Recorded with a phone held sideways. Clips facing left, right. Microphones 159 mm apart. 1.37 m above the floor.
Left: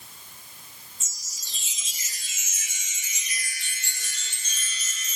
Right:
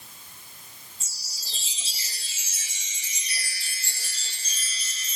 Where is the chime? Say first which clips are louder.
Right 2 dB; 35° right (ahead or behind), 0.8 m.